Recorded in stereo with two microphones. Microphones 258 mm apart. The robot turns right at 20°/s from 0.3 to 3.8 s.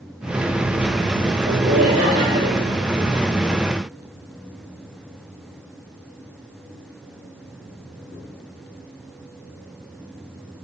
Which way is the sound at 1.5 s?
35° right (ahead or behind).